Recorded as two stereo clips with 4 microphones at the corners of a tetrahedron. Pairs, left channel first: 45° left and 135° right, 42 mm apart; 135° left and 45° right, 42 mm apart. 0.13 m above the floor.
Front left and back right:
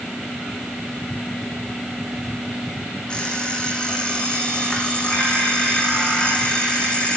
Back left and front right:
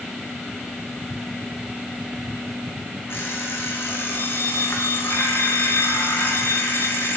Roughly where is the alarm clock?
Behind left.